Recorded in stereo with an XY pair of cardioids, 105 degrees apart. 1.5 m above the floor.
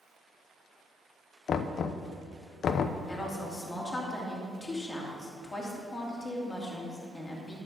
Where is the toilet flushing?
No toilet flushing in this recording.